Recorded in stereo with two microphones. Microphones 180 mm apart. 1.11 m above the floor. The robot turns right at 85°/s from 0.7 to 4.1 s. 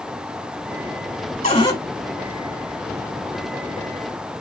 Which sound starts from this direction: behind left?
A cupboard door, at 1.4 s.